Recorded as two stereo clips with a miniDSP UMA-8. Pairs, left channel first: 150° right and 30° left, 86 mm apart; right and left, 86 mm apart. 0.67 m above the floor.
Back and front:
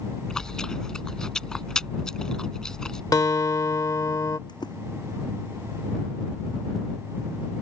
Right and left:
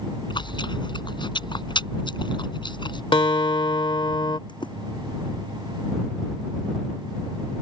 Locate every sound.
0.3 s chewing: 70° right
3.1 s a guitar: 105° right
4.5 s a splash: 115° right